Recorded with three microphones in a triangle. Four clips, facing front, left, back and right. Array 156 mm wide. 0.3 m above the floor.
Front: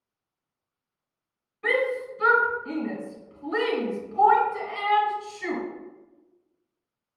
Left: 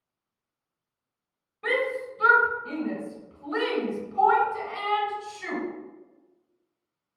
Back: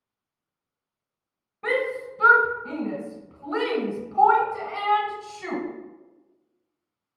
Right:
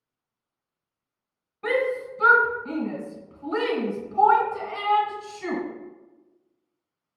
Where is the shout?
160° right, 1.2 m.